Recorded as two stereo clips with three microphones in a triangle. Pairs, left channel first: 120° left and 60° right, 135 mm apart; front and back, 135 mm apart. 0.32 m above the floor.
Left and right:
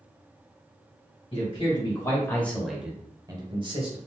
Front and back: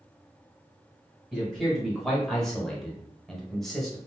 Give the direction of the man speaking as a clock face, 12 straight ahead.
9 o'clock.